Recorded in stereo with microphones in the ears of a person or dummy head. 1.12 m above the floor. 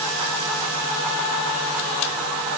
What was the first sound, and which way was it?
Only background noise.